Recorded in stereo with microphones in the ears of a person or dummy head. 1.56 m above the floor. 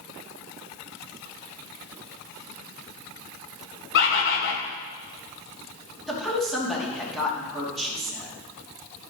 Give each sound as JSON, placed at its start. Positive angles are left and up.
{"t": 3.9, "sound": "a bird", "side_deg": 65, "distance_m": 1.4}
{"t": 6.1, "sound": "a woman speaking", "side_deg": 0, "distance_m": 2.5}